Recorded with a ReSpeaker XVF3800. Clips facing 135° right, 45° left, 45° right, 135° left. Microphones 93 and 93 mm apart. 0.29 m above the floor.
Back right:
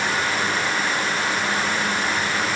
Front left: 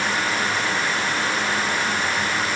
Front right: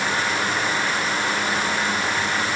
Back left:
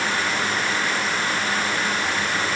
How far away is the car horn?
No car horn in this recording.